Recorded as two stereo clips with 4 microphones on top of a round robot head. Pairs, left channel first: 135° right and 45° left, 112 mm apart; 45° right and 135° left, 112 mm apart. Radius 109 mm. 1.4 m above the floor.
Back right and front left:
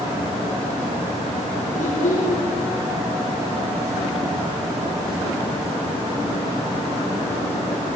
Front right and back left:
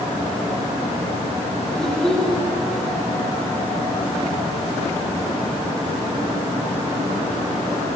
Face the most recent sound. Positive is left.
turn(degrees=-130)